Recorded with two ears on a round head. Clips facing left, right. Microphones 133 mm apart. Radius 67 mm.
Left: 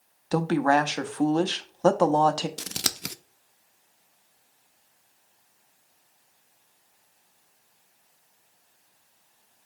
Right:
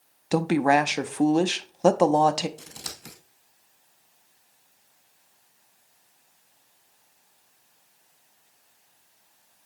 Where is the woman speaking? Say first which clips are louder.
Right 1 dB; 15° right (ahead or behind), 0.5 m.